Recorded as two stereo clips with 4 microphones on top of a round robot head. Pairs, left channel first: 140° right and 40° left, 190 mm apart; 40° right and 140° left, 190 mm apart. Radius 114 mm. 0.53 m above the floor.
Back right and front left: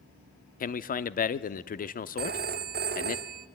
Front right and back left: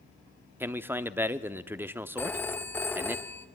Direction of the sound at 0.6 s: 145° right.